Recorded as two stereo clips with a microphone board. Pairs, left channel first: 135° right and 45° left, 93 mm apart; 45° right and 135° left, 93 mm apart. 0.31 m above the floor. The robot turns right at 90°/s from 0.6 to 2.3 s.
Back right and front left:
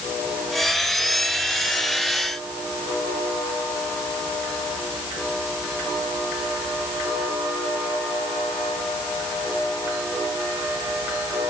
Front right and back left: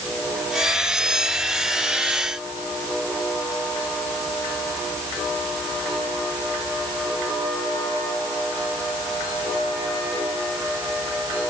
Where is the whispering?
No whispering in this recording.